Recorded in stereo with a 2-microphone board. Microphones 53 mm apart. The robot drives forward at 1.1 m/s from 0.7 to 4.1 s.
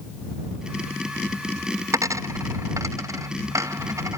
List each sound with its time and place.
1.9 s a dropped coin: 85° right; by 4.2 s 70° right (ahead or behind)